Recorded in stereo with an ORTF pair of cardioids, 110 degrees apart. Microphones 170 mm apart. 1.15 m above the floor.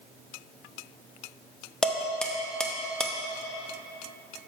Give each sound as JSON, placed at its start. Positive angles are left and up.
{"t": 1.8, "sound": "dishes clattering", "azimuth_deg": 5, "distance_m": 0.8}